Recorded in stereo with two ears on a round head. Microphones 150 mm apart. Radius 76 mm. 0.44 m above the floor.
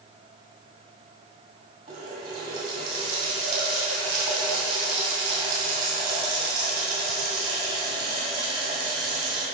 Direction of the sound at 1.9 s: 40° right (ahead or behind).